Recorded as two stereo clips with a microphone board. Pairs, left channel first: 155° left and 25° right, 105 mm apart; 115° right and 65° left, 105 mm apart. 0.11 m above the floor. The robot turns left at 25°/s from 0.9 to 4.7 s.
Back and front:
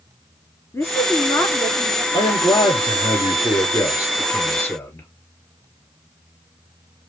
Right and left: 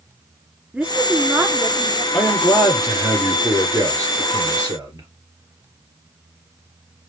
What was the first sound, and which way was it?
A woman speaking, 135° left.